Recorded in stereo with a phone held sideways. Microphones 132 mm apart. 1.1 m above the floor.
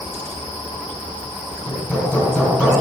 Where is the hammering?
10° left (ahead or behind), 6.5 m.